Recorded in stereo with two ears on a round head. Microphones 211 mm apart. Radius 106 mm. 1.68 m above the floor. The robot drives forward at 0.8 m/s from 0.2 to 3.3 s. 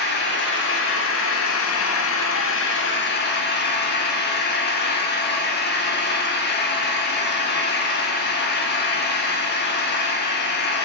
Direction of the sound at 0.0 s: 45° left (ahead or behind).